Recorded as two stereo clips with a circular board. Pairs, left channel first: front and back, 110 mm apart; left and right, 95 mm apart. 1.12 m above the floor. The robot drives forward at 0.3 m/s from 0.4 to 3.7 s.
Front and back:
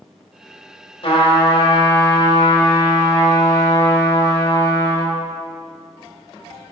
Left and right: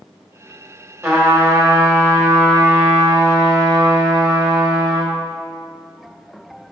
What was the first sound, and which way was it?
A trumpet, 30° right.